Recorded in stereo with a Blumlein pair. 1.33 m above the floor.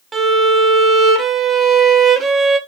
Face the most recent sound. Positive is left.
turn(degrees=-15)